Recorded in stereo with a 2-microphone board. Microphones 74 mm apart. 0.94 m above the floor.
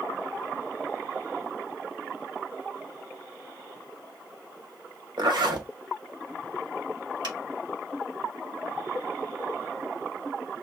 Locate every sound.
5.2 s a zipper: 75° right (ahead or behind), 1.6 m
7.2 s a finger snap: 75° right (ahead or behind), 5.5 m